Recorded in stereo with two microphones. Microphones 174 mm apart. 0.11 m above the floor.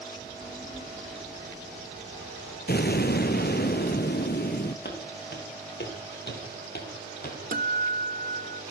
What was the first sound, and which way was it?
A child speaking, 30° left (ahead or behind).